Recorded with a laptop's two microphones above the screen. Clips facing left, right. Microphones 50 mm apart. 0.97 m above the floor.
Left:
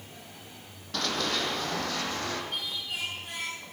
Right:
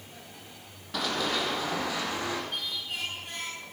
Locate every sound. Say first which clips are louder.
0.9 s running footsteps: right 1 dB; 10° right (ahead or behind), 2.5 m; by 2.4 s 15° right (ahead or behind), 3.5 m
2.5 s singing: even; centre (ahead or behind), 8 m